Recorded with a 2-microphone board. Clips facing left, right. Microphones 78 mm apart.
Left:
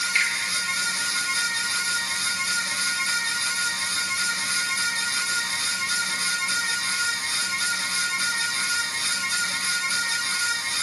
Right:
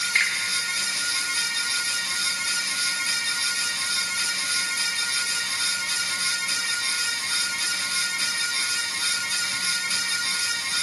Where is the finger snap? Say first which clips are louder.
Right 1 dB; 45° right (ahead or behind), 1.7 m.